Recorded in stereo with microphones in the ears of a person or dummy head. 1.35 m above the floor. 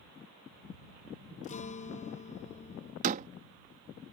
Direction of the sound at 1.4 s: 40° left (ahead or behind).